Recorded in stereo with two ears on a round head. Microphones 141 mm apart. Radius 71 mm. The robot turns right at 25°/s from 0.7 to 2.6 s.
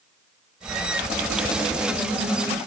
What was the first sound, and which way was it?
Only background noise.